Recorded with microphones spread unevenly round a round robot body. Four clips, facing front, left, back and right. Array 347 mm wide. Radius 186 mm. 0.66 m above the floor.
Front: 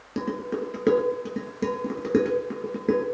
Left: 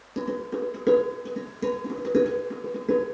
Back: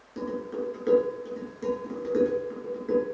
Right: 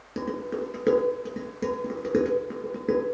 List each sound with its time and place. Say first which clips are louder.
0.2 s dishes clattering: left 1 dB, front 3 dB; 15° right, 9.5 m